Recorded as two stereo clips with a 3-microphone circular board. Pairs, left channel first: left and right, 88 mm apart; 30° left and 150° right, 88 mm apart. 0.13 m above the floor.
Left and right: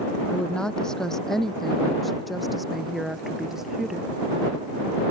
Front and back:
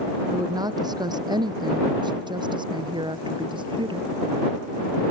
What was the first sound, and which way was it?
A woman speaking, 170° left.